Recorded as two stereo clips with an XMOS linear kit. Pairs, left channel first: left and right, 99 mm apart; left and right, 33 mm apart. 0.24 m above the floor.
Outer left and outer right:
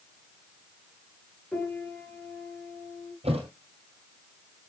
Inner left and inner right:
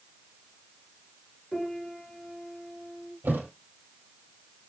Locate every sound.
1.5 s a piano: 5° left (ahead or behind), 4 m
3.2 s a thud: 85° right, 2.5 m